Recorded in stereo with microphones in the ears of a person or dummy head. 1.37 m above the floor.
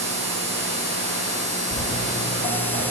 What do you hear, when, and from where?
1.7 s footsteps: 5° right (ahead or behind), 1.6 m; by 2.8 s 25° left (ahead or behind), 2.5 m